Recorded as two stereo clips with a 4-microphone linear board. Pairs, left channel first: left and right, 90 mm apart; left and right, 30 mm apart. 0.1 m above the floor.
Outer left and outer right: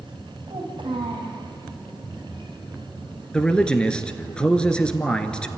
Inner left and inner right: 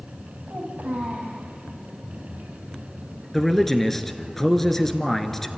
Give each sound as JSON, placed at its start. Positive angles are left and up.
{"t": 0.5, "sound": "a child speaking", "side_deg": -70, "distance_m": 3.5}
{"t": 3.3, "sound": "a man speaking", "side_deg": 10, "distance_m": 1.4}